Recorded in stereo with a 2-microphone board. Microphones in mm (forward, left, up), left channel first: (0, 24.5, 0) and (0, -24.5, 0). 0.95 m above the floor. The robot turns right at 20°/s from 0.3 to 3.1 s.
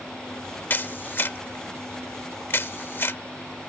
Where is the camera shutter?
40° left (ahead or behind); by 3.2 s 50° left (ahead or behind).